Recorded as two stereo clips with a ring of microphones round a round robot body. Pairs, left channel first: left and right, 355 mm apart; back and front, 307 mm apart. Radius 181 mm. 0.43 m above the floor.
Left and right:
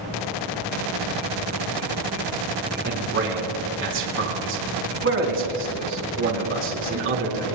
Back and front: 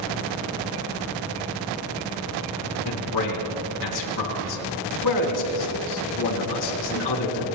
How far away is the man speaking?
About 3.5 m.